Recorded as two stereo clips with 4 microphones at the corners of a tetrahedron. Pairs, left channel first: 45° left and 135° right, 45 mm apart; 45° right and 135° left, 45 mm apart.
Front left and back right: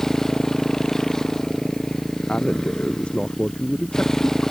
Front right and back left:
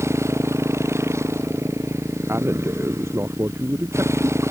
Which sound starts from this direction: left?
A man speaking, at 2.3 s.